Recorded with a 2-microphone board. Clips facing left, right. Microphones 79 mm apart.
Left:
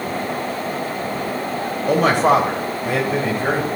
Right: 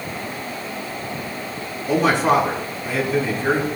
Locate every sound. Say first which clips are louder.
1.9 s a man speaking: left 2 dB; 60° left (ahead or behind), 1.7 m